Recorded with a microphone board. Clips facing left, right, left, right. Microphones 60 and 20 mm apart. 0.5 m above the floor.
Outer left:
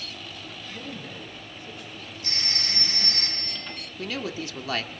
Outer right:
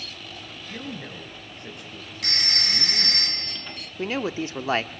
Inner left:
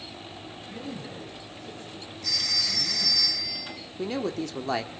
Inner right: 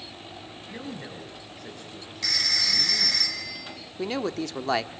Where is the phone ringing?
75° right (ahead or behind), 5 m.